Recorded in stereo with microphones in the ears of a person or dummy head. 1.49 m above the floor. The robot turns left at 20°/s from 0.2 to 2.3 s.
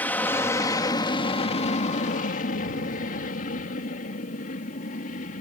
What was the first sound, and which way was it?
An aircraft, 10° left (ahead or behind).